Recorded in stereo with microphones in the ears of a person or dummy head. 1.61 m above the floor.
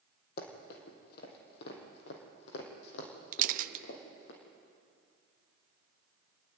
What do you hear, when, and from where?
0.4 s running footsteps: 55° left (ahead or behind), 3.5 m; by 4.3 s 70° left (ahead or behind), 5 m
3.3 s a camera shutter: 50° right (ahead or behind), 0.6 m